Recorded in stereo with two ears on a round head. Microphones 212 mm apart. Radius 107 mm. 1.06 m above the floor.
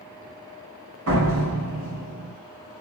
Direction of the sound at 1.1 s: 65° right (ahead or behind).